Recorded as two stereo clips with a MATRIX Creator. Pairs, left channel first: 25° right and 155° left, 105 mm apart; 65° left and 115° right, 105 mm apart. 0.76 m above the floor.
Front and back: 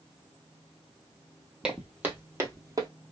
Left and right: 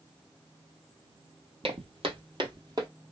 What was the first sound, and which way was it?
Footsteps, 120° right.